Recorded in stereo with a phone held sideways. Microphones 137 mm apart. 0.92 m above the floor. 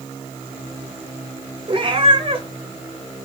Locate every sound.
1.7 s a cat meowing: 40° right (ahead or behind), 0.8 m